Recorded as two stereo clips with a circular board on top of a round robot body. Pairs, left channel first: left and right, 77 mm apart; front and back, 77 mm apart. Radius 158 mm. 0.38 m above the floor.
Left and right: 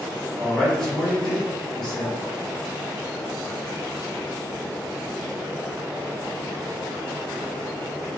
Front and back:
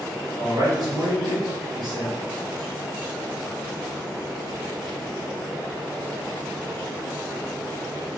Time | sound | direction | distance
0.4 | a man speaking | 170° left | 1.8 m